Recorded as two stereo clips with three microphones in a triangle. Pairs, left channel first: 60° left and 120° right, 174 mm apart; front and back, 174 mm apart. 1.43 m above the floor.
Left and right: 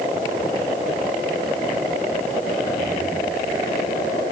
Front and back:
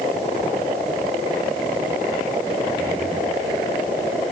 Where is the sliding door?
I don't hear a sliding door.